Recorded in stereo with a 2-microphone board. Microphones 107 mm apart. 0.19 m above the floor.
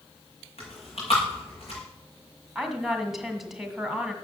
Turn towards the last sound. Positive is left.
turn(degrees=-5)  # may be behind; listen again after turning